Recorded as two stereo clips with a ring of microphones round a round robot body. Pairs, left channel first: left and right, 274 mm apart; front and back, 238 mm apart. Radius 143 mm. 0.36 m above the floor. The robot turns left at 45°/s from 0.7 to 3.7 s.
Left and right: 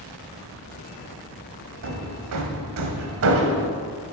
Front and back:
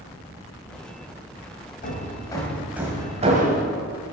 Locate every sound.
1.8 s hammering: 55° right, 1.4 m; by 3.7 s 135° right, 1.4 m